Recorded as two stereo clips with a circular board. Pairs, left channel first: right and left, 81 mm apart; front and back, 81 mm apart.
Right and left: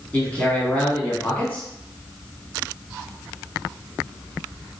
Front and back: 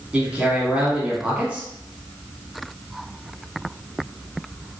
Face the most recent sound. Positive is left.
turn(degrees=-130)